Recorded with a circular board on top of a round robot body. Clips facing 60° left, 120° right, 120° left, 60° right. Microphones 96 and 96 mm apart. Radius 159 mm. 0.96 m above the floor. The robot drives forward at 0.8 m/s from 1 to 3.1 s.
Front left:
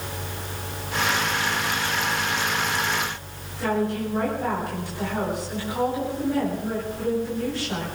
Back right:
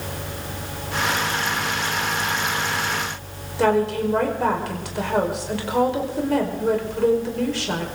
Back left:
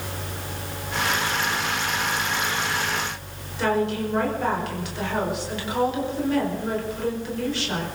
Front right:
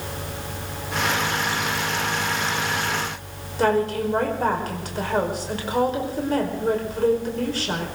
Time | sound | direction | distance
3.6 | a woman speaking | 110° right | 5 m